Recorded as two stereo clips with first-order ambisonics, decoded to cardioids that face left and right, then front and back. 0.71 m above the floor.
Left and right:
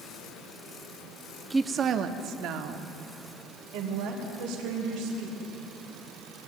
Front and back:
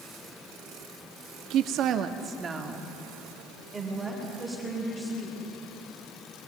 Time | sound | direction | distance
1.5 | a woman speaking | 170° right | 0.6 m